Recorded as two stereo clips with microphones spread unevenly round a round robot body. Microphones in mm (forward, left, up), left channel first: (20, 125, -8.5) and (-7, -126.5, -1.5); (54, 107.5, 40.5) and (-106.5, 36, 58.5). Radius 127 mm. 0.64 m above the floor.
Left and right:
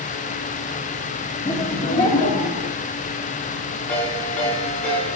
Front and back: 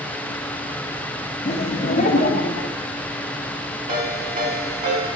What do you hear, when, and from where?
1.4 s laughter: 20° left, 1.1 m; by 2.8 s 40° left, 1.6 m
3.9 s a ringtone: 170° left, 5 m